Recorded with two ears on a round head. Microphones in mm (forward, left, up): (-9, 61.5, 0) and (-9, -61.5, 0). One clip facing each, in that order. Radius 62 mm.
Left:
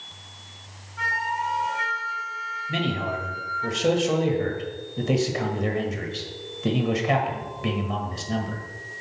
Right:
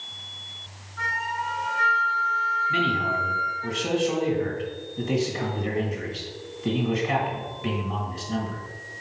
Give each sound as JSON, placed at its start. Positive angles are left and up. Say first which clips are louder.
{"t": 1.0, "sound": "a flute", "louder": "left 2 dB", "side_deg": 25, "distance_m": 1.8}
{"t": 2.7, "sound": "a man speaking", "louder": "left 2 dB", "side_deg": 55, "distance_m": 1.7}